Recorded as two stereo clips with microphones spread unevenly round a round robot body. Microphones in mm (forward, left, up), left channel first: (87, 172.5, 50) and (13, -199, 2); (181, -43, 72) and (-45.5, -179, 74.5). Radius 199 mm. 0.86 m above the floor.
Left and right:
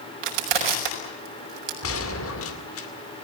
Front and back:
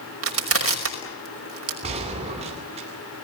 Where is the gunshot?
140° left, 2.5 m.